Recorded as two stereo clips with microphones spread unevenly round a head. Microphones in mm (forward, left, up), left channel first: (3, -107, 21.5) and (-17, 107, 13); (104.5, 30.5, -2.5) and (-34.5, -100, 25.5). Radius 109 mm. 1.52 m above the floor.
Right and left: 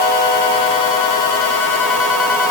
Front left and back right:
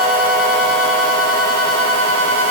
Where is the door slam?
I don't hear a door slam.